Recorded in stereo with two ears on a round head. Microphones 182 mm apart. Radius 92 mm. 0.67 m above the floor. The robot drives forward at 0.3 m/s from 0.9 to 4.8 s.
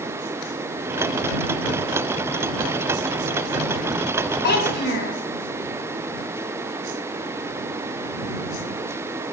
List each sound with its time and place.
4.4 s a child speaking: 55° left (ahead or behind), 3.5 m